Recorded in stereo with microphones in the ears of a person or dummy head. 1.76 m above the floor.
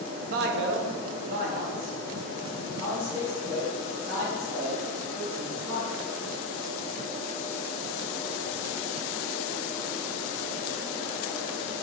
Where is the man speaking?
50° right (ahead or behind), 0.6 m; by 6.0 s 10° right (ahead or behind), 3 m.